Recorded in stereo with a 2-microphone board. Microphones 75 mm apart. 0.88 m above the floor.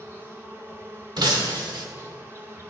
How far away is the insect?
About 1.2 m.